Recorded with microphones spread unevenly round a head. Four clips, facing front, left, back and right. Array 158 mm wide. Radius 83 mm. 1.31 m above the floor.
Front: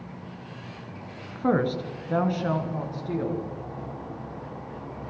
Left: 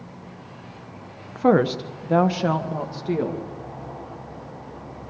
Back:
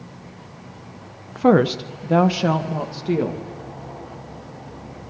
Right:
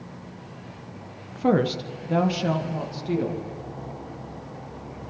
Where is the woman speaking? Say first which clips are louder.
Left 4 dB, back 8 dB; 145° left, 0.9 m; by 3.5 s 150° left, 2 m.